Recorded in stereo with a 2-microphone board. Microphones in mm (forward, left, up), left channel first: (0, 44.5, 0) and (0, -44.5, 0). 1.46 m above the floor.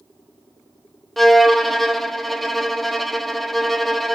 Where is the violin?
Centre (ahead or behind), 0.5 m.